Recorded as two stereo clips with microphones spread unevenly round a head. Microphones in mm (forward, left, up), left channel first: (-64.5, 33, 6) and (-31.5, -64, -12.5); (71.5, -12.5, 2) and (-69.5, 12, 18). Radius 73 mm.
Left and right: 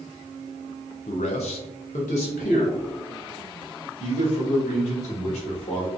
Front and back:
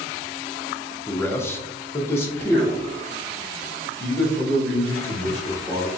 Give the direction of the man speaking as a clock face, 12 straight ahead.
10 o'clock.